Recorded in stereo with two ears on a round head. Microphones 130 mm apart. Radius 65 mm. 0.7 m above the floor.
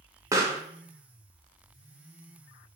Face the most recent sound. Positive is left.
turn(degrees=-20)  # may be behind; listen again after turning